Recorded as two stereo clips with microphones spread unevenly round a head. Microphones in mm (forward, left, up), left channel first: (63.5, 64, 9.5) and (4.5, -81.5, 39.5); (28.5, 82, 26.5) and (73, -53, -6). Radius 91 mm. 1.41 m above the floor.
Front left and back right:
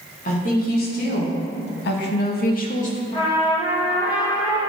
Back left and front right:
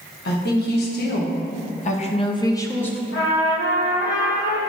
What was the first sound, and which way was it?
A woman speaking, 110° left.